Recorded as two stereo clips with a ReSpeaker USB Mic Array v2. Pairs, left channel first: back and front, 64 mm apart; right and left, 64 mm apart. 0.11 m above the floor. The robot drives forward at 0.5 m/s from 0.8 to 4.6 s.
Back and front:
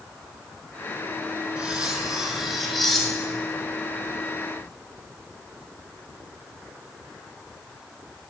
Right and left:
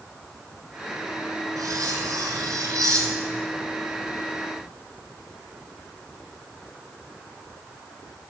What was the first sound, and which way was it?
Cutlery clinking, 75° left.